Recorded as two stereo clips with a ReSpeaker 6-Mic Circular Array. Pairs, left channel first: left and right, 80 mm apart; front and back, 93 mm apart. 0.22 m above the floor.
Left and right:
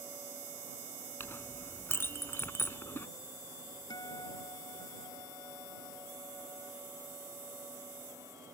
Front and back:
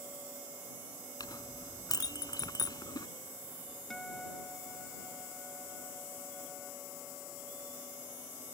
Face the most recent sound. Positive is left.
turn(degrees=85)